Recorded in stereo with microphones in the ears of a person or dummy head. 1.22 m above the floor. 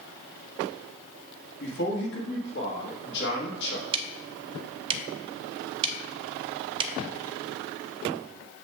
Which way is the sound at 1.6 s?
65° left (ahead or behind).